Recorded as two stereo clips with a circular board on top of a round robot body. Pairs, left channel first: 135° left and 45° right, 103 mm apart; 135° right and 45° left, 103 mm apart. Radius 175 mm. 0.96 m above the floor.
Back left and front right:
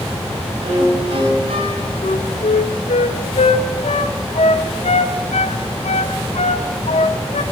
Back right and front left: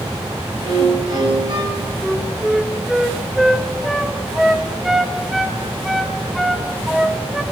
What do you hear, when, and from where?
0.6 s a violin: 10° right, 6 m
2.0 s a flute: 130° left, 1.5 m